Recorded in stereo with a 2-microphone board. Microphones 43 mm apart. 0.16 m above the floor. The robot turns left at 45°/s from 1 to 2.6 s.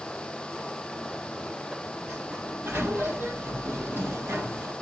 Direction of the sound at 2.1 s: 40° right (ahead or behind).